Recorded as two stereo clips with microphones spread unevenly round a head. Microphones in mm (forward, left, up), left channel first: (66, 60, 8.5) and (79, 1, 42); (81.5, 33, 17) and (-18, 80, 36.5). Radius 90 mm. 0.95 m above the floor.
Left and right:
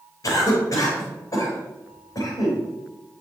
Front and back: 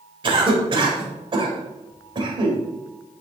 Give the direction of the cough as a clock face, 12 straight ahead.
8 o'clock.